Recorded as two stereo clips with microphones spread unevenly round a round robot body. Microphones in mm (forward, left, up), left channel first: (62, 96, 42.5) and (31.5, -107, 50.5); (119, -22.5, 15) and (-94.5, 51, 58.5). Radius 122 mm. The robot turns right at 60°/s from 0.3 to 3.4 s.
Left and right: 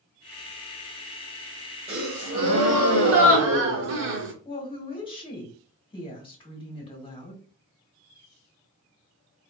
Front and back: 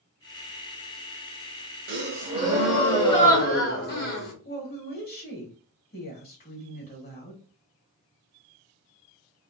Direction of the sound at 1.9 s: 165° right.